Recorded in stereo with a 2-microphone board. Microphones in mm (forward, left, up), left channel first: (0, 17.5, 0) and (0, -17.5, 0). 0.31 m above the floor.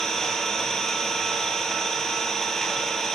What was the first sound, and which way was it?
An engine running, 10° left (ahead or behind).